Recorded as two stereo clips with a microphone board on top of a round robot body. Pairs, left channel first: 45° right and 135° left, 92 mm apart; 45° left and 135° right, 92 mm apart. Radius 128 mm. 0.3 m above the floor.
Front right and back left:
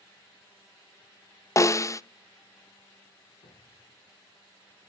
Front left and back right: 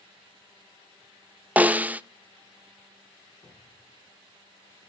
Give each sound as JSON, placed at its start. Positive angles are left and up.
{"t": 1.6, "sound": "a snare drum", "azimuth_deg": -70, "distance_m": 0.8}
{"t": 3.4, "sound": "a cupboard door", "azimuth_deg": -5, "distance_m": 6.5}